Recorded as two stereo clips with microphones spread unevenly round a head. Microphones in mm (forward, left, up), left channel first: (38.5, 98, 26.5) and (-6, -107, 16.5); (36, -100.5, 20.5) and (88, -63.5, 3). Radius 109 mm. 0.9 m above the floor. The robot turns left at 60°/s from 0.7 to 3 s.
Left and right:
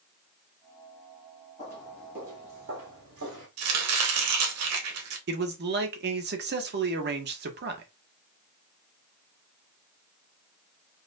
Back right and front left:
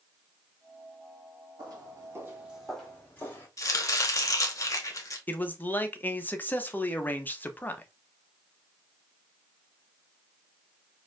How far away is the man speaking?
About 0.9 m.